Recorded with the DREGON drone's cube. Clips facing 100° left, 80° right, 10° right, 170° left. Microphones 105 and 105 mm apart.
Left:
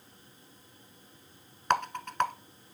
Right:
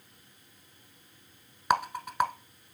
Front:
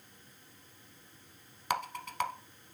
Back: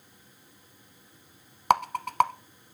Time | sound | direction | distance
1.7 | a rattle | 160° right | 0.6 m